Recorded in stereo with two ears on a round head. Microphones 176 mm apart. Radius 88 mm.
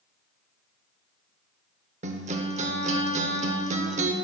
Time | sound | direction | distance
2.0 | a guitar | 35° right (ahead or behind) | 0.7 m